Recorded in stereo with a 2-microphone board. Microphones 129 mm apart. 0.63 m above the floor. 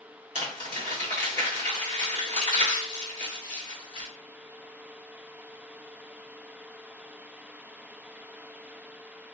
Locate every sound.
0.3 s crumpling: 70° right (ahead or behind), 1.6 m